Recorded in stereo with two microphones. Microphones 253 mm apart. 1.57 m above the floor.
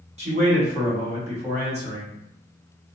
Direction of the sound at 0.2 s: 25° right (ahead or behind).